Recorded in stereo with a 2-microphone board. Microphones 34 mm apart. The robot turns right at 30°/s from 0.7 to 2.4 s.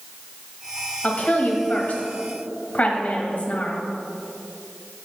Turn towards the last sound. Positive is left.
turn(degrees=115)